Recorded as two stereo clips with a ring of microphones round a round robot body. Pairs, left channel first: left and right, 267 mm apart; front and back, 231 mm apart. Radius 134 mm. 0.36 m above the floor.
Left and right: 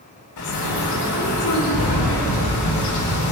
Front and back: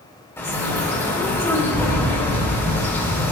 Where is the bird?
80° left, 4 m.